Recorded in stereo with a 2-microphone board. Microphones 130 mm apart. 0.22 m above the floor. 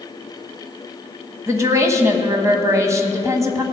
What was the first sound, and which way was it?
A woman speaking, 25° right (ahead or behind).